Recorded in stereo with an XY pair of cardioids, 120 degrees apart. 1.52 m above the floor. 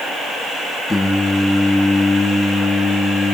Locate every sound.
0.9 s singing: 10° left, 1.5 m